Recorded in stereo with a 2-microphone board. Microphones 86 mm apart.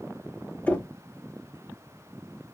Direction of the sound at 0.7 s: 15° left (ahead or behind).